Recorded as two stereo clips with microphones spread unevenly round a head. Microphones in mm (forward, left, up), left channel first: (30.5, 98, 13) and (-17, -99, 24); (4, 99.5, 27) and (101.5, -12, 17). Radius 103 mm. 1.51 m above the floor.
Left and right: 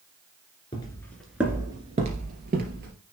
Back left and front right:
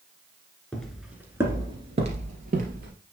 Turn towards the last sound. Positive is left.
turn(degrees=-80)